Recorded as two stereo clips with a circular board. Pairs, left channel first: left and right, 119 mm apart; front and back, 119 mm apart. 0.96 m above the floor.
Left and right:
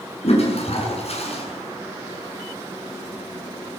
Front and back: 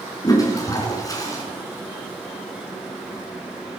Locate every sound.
0.2 s a toilet flushing: 60° left, 7 m